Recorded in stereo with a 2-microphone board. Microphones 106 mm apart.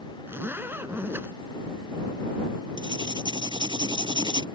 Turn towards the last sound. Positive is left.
turn(degrees=-45)  # may be behind; listen again after turning